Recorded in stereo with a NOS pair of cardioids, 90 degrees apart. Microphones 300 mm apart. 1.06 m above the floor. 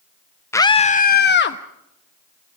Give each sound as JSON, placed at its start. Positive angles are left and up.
{"t": 0.5, "sound": "a scream", "azimuth_deg": 10, "distance_m": 0.6}